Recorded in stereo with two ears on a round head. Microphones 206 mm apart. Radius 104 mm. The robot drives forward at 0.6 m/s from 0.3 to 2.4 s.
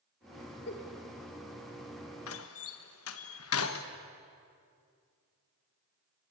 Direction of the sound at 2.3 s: 60° left (ahead or behind).